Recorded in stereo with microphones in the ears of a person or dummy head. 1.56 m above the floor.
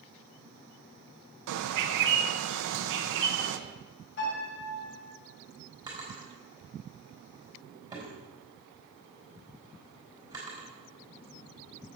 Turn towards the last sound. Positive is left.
turn(degrees=-20)  # may be behind; listen again after turning